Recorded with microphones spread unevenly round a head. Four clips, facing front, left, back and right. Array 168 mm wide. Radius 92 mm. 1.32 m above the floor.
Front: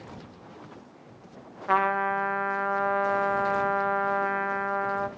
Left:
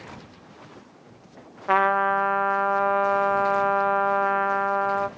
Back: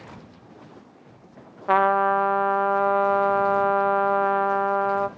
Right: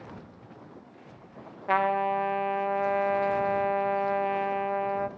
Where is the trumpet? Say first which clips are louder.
Left 4 dB, back 6 dB; 165° left, 1.1 m.